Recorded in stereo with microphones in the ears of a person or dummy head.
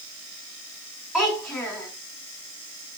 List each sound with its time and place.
1.1 s a child speaking: 5° left (ahead or behind), 4 m